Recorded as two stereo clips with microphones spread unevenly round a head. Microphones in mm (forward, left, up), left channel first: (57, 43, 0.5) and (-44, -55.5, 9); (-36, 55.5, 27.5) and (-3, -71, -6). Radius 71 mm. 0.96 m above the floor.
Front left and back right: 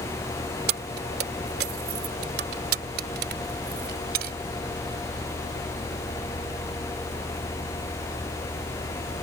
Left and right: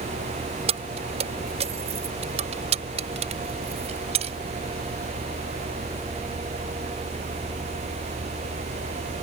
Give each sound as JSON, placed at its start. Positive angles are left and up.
{"t": 0.7, "sound": "keys jangling", "azimuth_deg": -120}